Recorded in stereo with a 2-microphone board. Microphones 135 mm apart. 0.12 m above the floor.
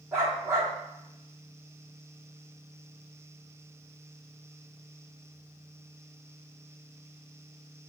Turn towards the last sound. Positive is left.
turn(degrees=-20)  # may be behind; listen again after turning